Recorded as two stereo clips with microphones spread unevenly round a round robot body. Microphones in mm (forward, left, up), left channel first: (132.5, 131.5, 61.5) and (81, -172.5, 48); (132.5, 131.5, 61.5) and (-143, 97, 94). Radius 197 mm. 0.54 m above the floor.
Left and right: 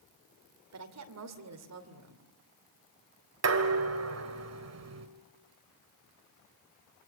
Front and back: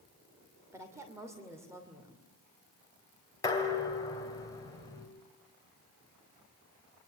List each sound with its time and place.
0.7 s a woman speaking: 90° right, 2.5 m
3.4 s dishes clattering: 70° right, 2.0 m